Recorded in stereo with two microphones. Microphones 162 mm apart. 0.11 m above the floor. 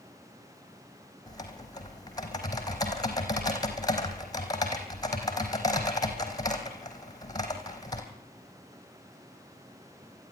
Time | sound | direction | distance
1.3 | typing on a keyboard | 25° left (ahead or behind) | 3.5 m